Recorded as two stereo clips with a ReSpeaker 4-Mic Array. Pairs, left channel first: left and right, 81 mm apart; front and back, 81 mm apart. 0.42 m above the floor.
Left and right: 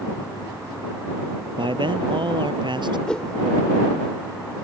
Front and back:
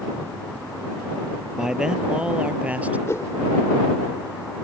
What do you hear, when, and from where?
1.6 s a man speaking: 95° right; by 3.0 s 110° right
3.1 s a whoosh: 20° left